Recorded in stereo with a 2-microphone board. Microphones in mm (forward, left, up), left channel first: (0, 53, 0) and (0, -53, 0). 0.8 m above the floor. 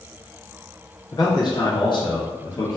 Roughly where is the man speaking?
Left.